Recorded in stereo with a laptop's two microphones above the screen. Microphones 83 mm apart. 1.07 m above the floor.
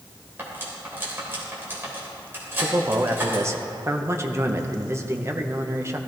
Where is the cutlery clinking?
25° right (ahead or behind), 3 m.